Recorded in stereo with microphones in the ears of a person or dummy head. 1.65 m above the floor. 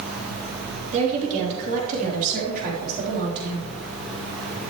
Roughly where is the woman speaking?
Right.